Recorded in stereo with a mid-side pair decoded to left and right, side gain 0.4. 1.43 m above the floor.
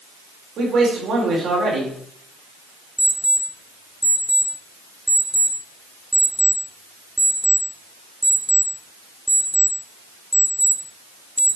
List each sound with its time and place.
0.6 s a man speaking: 65° right, 4.5 m
3.0 s an alarm clock: 5° right, 2 m